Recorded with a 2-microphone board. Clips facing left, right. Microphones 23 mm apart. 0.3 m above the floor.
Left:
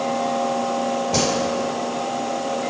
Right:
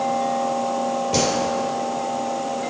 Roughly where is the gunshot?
Centre.